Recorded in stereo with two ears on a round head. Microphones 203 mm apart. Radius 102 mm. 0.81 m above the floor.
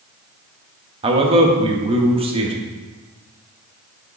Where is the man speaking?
25° right (ahead or behind), 0.8 m.